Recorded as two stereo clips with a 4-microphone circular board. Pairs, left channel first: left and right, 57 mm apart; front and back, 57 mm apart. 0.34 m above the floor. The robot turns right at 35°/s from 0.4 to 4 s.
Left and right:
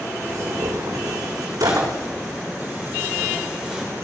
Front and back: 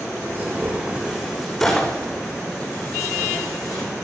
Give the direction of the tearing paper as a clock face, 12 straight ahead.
4 o'clock.